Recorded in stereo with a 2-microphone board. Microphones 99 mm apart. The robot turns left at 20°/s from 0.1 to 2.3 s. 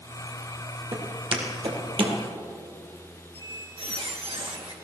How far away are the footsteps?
About 3.5 m.